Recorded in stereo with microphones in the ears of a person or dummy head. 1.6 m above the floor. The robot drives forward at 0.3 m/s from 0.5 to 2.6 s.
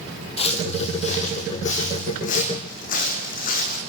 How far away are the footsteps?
About 3.5 m.